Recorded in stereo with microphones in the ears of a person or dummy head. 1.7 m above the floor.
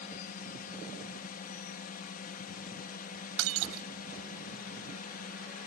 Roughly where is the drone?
Left.